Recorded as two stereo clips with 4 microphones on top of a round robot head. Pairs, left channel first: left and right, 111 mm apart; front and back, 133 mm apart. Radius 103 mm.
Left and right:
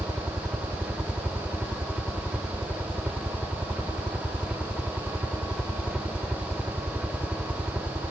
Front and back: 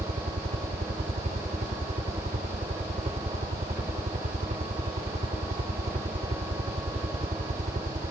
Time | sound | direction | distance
0.0 | a helicopter | 170° right | ?